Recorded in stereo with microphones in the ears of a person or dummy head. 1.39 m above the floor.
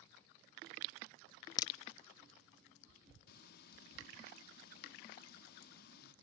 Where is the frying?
60° left (ahead or behind), 1.7 m.